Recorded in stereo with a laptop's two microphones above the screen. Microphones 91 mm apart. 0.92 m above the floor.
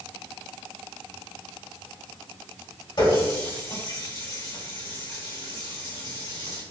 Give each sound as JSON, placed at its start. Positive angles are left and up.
{"t": 3.0, "sound": "a running tap", "side_deg": 55, "distance_m": 1.7}